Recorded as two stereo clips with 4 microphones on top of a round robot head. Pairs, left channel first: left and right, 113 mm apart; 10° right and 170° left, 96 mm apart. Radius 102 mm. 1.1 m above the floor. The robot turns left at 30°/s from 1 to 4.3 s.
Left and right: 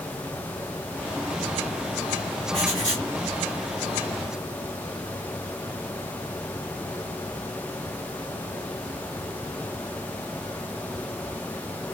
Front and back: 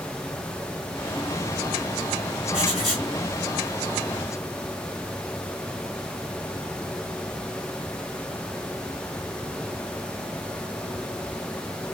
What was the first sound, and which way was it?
Writing, 40° right.